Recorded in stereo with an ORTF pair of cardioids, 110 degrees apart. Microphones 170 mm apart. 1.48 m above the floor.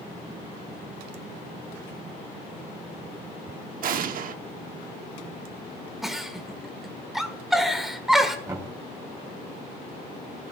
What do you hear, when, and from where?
3.8 s an explosion: 55° right, 1.0 m
6.0 s a giggle: straight ahead, 1.6 m
8.5 s knocking: 20° right, 4.5 m